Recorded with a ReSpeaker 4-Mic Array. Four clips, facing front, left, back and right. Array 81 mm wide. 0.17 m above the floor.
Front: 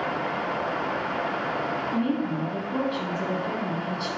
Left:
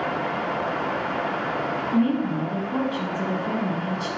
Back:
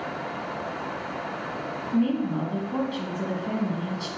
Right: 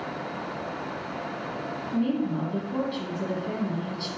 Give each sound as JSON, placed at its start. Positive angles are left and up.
{"t": 1.9, "sound": "a woman speaking", "azimuth_deg": 110, "distance_m": 1.2}